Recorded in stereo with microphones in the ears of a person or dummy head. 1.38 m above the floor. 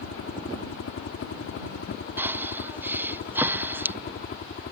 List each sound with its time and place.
0.0 s a helicopter: 70° left (ahead or behind); by 4.7 s 45° left (ahead or behind)
2.2 s breathing: 15° right (ahead or behind)